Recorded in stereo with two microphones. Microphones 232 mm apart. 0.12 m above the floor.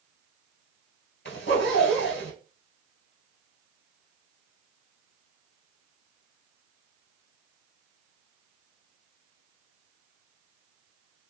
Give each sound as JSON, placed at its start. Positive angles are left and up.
{"t": 1.2, "sound": "a zipper", "side_deg": 50, "distance_m": 1.4}